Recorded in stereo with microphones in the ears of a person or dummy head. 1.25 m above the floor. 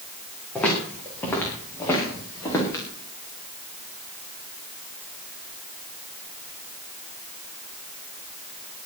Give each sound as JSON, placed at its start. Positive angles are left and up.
{"t": 0.6, "sound": "footsteps", "side_deg": 10, "distance_m": 7.0}